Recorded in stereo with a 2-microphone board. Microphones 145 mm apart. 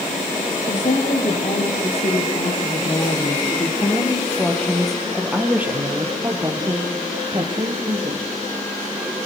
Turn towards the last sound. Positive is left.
turn(degrees=-40)  # may be behind; listen again after turning